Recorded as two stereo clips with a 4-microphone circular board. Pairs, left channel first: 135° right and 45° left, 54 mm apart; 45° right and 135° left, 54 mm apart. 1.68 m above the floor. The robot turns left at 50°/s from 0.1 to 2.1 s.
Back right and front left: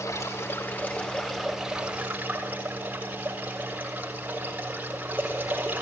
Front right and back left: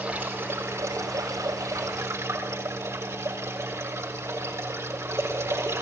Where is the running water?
155° right, 6.5 m; by 5.8 s 105° left, 6.5 m.